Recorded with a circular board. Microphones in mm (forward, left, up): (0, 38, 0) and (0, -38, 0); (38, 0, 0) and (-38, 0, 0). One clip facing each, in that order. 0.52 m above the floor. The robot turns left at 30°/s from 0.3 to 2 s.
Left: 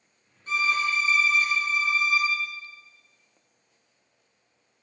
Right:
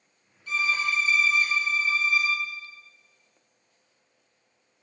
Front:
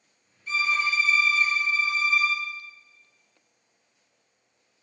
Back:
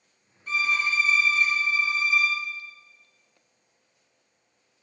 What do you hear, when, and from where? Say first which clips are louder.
0.5 s a violin: left 2 dB, even; 145° left, 2 m; by 2.4 s 100° left, 2 m